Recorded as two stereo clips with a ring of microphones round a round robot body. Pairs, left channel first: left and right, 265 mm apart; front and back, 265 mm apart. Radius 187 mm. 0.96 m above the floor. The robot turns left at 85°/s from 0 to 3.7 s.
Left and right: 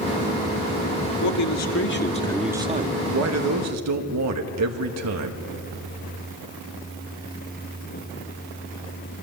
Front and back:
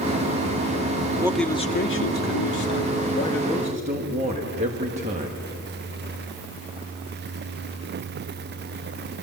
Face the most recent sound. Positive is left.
turn(degrees=-110)